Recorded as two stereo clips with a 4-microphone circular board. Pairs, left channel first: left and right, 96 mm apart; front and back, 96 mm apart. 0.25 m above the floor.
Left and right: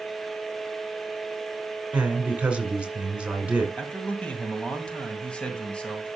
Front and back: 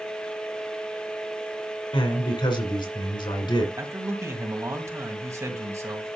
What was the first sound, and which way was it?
A man speaking, 15° right.